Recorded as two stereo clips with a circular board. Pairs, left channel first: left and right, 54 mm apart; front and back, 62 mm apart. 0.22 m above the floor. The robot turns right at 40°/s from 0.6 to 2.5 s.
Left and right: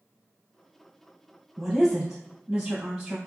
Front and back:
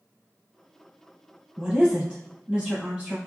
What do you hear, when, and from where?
1.6 s a woman speaking: 170° right, 1.4 m; by 3.2 s 135° right, 1.4 m